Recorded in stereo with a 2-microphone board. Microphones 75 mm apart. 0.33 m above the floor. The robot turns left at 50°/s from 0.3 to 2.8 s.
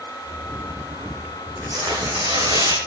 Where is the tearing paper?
50° right, 4.5 m; by 2.8 s 110° right, 4.5 m.